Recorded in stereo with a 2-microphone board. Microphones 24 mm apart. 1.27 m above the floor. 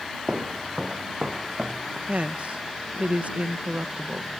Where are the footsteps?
50° right (ahead or behind); by 2.0 s 35° right (ahead or behind).